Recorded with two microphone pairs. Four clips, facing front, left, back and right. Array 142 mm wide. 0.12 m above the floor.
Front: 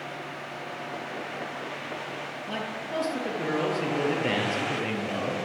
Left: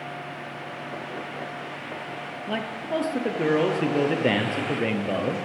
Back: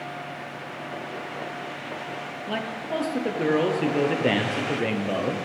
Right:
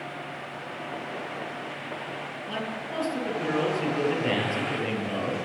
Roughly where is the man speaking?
Behind left.